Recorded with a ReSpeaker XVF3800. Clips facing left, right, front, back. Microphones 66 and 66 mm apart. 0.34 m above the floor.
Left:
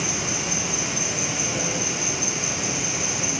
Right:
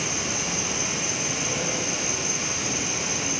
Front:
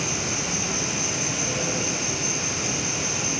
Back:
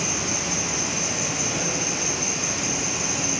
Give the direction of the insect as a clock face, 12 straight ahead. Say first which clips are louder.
Left 1 dB, back 1 dB; 6 o'clock.